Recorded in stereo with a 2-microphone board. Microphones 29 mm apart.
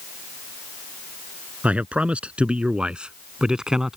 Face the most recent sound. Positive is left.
turn(degrees=-20)  # may be behind; listen again after turning